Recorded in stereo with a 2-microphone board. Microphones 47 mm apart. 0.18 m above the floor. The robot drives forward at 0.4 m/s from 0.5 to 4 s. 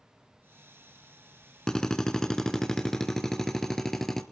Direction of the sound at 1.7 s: 15° left (ahead or behind).